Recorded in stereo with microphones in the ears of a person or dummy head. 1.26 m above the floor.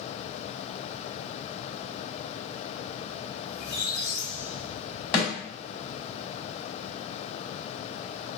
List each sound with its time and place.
3.5 s a squeak: 70° left (ahead or behind), 1.4 m
5.1 s a snare drum: 25° left (ahead or behind), 1.4 m